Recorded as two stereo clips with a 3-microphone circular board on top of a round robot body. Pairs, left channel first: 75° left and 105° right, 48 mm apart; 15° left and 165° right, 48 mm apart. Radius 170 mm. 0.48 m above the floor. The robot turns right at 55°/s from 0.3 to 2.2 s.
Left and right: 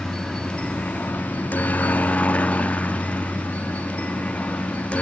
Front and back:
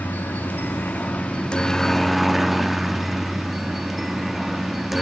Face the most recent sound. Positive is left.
turn(degrees=110)